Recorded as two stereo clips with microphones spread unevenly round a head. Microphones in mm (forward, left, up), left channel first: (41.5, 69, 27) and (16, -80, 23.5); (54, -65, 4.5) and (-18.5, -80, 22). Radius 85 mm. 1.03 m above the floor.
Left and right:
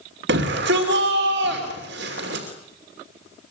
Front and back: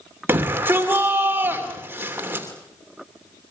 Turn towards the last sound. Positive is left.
turn(degrees=-105)